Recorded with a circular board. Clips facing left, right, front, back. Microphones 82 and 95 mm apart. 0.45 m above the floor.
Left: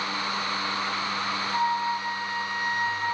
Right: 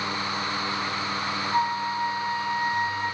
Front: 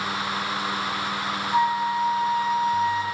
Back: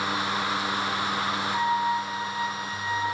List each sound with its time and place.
1.5 s a flute: 30° right, 0.8 m